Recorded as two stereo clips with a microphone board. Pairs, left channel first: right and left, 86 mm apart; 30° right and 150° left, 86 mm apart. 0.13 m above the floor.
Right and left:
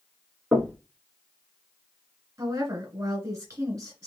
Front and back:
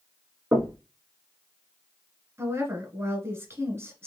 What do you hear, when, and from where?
0.5 s knocking: 145° left, 1.1 m
2.4 s a woman speaking: 110° left, 1.6 m